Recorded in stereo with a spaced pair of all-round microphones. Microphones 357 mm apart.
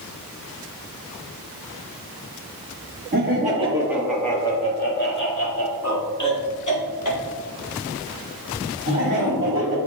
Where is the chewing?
No chewing in this recording.